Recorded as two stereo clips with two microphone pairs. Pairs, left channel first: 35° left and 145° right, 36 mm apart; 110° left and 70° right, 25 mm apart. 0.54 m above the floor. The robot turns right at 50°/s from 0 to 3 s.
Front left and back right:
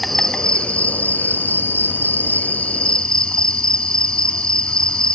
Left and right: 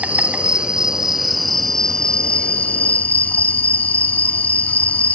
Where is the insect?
50° right, 1.4 m; by 5.1 s 100° left, 1.4 m.